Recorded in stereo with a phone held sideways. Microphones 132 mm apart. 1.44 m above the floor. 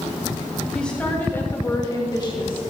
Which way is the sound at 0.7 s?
5° left (ahead or behind).